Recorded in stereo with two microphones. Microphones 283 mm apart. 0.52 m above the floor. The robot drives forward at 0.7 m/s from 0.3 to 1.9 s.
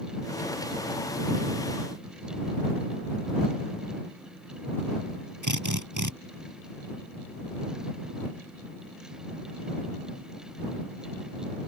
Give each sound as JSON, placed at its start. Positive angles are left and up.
{"t": 5.4, "sound": "a drill", "side_deg": -85}